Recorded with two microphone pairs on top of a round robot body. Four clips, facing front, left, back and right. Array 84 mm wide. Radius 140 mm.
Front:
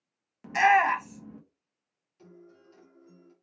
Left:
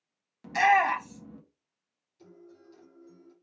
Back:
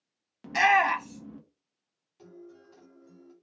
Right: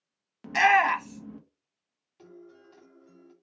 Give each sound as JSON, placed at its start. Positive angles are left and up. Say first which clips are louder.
{"t": 0.4, "sound": "a shout", "louder": "right 1 dB, front 1 dB", "azimuth_deg": -95, "distance_m": 1.5}
{"t": 2.2, "sound": "a guitar", "louder": "right 3 dB, back 4 dB", "azimuth_deg": -115, "distance_m": 1.7}